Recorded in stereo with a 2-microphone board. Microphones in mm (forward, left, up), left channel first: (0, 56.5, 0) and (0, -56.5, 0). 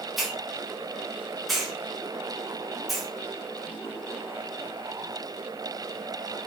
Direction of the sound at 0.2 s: Centre (ahead or behind).